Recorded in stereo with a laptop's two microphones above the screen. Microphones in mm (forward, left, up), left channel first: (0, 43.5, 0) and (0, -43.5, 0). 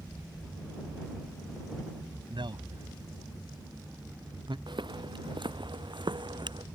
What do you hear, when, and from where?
2.3 s a man speaking: 80° right
4.7 s footsteps: 75° right (ahead or behind)